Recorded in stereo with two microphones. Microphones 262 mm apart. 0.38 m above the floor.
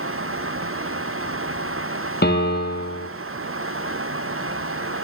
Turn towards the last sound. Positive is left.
turn(degrees=40)  # may be behind; listen again after turning